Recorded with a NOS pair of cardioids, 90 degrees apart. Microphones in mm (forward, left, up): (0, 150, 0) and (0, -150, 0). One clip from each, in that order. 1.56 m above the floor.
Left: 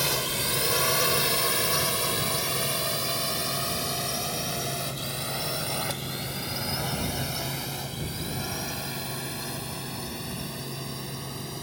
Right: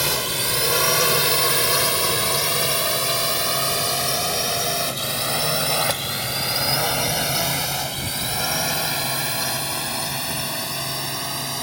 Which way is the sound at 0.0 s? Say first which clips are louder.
Right 5 dB; 30° right.